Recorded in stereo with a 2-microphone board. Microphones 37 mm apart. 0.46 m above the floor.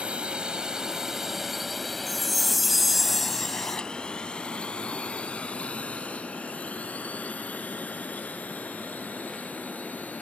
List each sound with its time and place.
0.0 s a drone: 30° right (ahead or behind); by 10.2 s 50° left (ahead or behind)
2.1 s a chime: centre (ahead or behind)